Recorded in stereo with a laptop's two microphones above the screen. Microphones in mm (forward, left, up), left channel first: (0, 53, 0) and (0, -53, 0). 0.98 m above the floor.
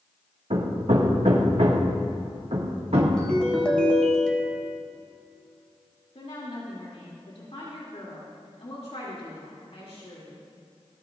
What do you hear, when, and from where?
0.5 s hammering: 75° right (ahead or behind), 1.8 m
3.2 s a ringtone: 10° left (ahead or behind), 3 m
6.2 s a woman speaking: 80° left, 3 m